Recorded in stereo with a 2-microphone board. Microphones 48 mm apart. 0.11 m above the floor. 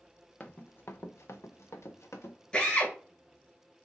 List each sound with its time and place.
0.4 s running footsteps: 30° left (ahead or behind), 0.6 m; by 2.4 s 80° left, 1.0 m
2.5 s a drill: 20° left (ahead or behind), 1.3 m